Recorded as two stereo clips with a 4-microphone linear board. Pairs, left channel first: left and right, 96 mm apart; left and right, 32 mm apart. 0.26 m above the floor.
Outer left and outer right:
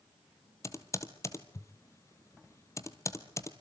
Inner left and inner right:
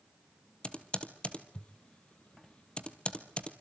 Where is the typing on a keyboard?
30° left (ahead or behind), 2 m.